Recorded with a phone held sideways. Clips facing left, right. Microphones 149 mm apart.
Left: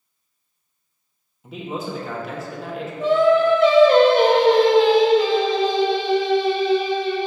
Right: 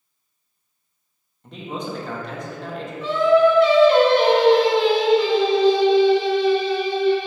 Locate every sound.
1.4 s a man speaking: 5° left (ahead or behind), 1.3 m
3.0 s singing: 45° left (ahead or behind), 1.3 m